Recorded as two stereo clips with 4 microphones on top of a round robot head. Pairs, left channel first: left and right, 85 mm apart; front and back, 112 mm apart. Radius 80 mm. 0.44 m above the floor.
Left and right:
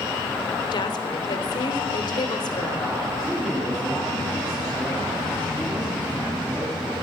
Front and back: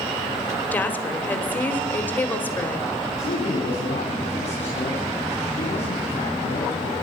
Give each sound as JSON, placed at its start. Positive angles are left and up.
{"t": 0.7, "sound": "a woman speaking", "azimuth_deg": 70, "distance_m": 2.0}
{"t": 3.2, "sound": "a man speaking", "azimuth_deg": 0, "distance_m": 3.5}